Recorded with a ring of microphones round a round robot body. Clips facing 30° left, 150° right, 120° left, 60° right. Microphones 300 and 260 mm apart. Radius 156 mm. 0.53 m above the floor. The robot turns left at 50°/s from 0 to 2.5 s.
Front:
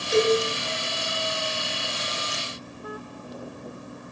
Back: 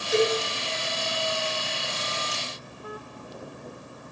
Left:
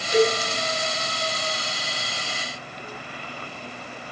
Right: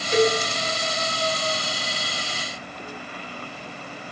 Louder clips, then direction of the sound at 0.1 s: Front 3 dB, even; straight ahead.